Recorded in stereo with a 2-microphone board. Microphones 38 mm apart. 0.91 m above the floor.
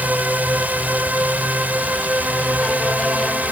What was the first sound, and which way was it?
A drone, 40° right (ahead or behind).